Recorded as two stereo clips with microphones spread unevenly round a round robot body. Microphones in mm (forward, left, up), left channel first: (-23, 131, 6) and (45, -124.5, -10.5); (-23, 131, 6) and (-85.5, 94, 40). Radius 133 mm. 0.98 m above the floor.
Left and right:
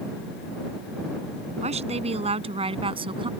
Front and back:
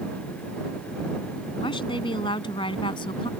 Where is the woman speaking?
10° right; by 3.3 s 5° right.